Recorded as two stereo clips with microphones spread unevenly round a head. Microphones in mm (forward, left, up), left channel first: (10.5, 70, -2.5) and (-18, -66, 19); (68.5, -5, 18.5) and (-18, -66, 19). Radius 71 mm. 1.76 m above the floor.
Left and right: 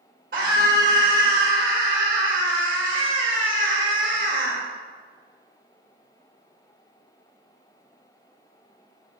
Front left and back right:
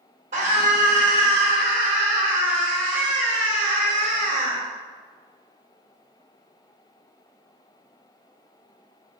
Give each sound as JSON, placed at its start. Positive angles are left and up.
{"t": 0.3, "sound": "a scream", "azimuth_deg": -130, "distance_m": 3.0}